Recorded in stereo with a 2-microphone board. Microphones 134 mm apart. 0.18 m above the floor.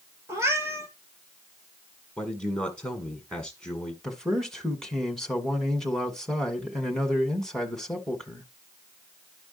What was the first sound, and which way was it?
A cat meowing, 20° right (ahead or behind).